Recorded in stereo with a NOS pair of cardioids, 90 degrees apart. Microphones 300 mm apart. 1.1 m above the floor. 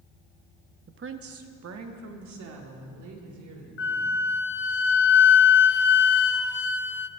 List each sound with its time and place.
0.9 s a woman speaking: 35° right, 1.0 m; by 4.3 s 75° right, 4 m
3.8 s a flute: 40° left, 0.7 m